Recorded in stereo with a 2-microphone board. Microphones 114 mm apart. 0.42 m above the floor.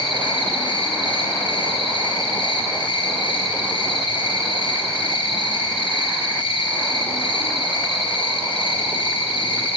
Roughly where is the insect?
Left.